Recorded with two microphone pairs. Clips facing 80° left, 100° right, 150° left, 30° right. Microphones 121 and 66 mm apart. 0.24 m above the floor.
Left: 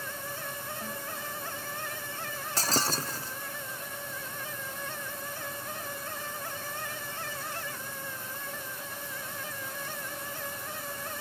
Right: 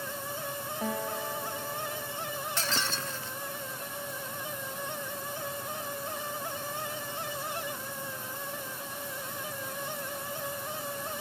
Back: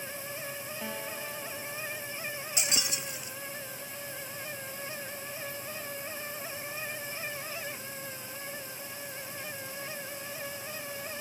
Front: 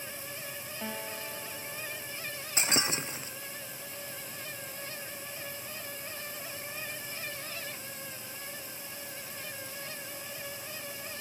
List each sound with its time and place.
0.8 s a guitar: 110° right
2.6 s breaking glass: 30° left